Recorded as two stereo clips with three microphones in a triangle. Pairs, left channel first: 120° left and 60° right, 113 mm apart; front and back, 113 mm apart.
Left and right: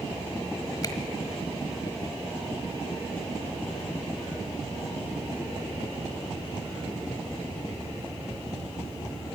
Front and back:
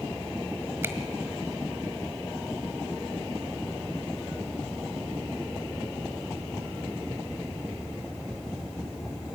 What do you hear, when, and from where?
0.8 s a finger snap: 130° left, 1.3 m